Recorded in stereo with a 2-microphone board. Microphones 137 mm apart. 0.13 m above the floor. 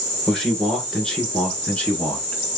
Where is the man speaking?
5° left (ahead or behind), 1.8 m; by 2.6 s 15° left (ahead or behind), 1.2 m.